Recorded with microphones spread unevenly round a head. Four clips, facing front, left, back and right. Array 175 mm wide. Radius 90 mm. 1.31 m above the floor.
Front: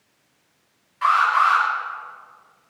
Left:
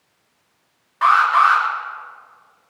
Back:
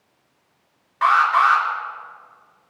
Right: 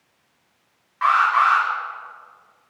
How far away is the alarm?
About 3.5 m.